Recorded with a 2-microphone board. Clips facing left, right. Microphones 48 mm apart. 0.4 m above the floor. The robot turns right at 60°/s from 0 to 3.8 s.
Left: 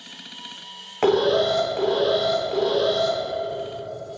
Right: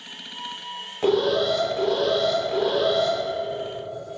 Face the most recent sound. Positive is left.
turn(degrees=-95)